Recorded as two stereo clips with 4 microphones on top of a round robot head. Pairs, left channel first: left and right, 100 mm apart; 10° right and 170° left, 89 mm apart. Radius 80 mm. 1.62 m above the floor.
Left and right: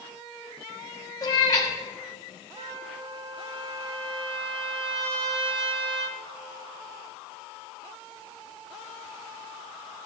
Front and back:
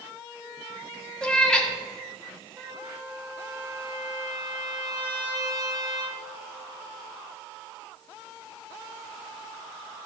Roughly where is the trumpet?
Behind right.